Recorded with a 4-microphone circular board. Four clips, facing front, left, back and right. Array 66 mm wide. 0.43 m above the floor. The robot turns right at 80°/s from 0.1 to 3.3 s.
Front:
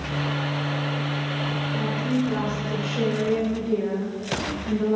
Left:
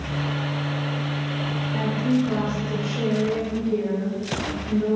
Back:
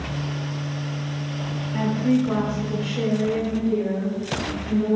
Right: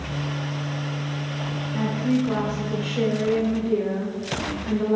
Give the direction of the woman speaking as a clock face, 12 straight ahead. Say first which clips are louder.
Even, back 6 dB; 6 o'clock.